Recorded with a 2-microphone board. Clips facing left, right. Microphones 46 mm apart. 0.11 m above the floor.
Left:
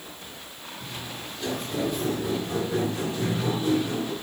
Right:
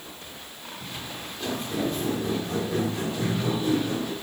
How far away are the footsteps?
About 4.5 m.